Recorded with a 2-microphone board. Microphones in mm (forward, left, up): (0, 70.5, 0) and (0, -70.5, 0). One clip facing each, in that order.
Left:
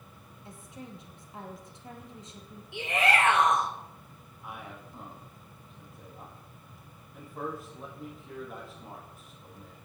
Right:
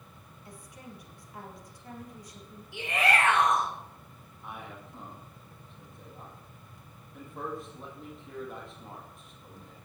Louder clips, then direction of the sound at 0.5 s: Left 3 dB; 25° left (ahead or behind).